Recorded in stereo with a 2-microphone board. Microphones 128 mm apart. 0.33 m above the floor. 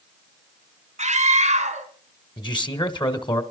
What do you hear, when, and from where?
1.0 s a scream: 65° right (ahead or behind), 3 m
2.4 s a man speaking: 35° left (ahead or behind), 1.8 m